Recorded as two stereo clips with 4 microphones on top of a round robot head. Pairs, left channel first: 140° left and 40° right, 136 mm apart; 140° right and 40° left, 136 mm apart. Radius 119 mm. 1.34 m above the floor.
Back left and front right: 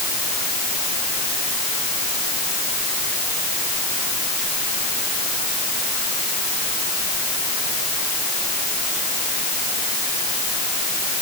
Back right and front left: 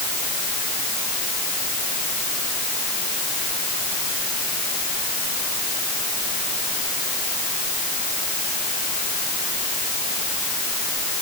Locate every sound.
Only background noise.